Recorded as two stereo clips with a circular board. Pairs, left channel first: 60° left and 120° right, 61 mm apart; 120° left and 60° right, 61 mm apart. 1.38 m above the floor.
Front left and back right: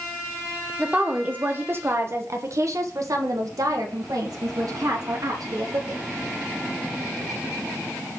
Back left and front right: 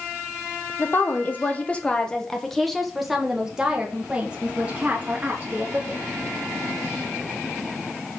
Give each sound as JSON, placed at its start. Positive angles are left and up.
{"t": 0.8, "sound": "a woman speaking", "azimuth_deg": 165, "distance_m": 1.2}